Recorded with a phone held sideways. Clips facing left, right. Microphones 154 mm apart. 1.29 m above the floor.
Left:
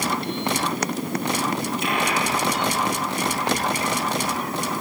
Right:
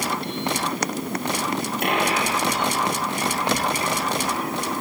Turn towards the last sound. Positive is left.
turn(degrees=-60)  # may be behind; listen again after turning